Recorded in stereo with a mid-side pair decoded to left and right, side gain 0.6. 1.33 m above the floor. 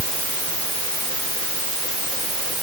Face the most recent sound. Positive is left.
No sound to turn to.